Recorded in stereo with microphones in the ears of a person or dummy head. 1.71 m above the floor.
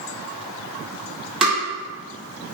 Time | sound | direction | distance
1.4 | tapping | 5° right (ahead or behind) | 1.8 m